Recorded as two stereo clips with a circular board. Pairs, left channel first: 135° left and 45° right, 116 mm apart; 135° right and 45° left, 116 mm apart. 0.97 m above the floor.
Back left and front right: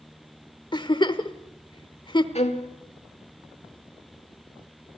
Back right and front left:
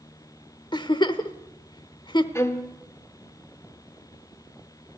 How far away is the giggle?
About 1.1 m.